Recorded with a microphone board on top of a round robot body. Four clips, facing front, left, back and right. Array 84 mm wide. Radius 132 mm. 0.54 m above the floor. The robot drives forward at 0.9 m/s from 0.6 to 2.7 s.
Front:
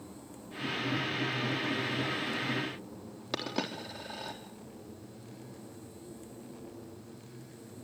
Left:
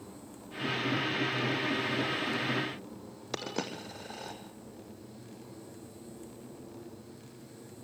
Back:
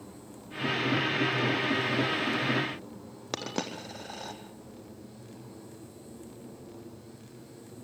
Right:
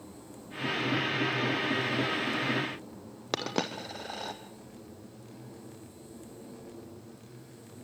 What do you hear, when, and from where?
3.3 s a dropped coin: 105° right, 3.5 m